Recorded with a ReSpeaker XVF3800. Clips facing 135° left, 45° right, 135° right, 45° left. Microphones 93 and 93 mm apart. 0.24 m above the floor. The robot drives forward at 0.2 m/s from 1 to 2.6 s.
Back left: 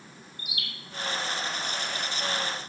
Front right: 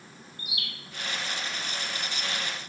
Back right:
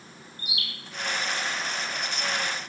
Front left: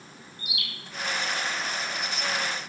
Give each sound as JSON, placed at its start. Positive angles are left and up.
{"t": 0.4, "sound": "a bird", "azimuth_deg": -95, "distance_m": 0.8}